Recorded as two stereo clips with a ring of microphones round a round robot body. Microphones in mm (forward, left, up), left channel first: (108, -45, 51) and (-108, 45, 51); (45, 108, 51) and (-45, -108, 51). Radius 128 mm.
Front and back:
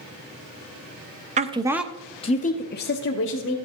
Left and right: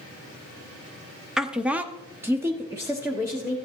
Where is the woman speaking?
160° left, 0.9 m; by 3.5 s 35° right, 1.6 m.